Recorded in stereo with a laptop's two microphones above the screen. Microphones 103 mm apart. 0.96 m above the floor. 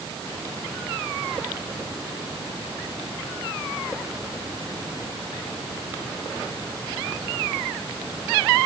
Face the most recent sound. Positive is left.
No sound to turn to.